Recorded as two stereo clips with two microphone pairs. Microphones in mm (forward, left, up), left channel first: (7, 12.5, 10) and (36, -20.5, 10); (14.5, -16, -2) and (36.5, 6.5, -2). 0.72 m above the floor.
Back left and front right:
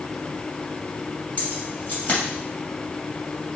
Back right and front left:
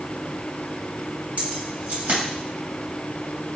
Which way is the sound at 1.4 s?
80° left.